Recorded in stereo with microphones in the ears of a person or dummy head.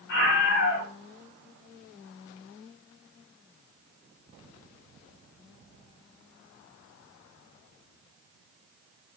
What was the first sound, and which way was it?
A scream, 65° left (ahead or behind).